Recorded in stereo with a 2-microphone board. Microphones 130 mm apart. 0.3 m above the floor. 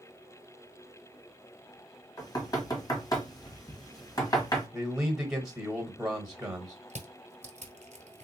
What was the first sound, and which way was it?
Knocking, 30° left (ahead or behind).